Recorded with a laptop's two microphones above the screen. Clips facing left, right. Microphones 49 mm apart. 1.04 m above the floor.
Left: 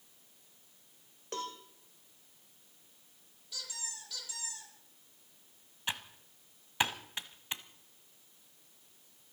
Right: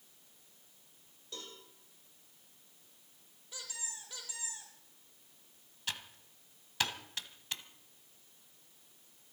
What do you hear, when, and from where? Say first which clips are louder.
1.3 s a cowbell: left 9 dB; 60° left (ahead or behind), 1.9 m
3.5 s a squeak: left 1 dB; 25° right (ahead or behind), 7.5 m
5.9 s typing on a keyboard: left 3 dB; 20° left (ahead or behind), 1.1 m